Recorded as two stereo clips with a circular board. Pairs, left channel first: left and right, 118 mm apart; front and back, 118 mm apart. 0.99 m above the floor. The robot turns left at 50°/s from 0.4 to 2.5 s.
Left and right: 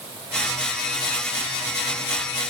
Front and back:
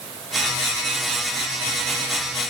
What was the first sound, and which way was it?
Only background noise.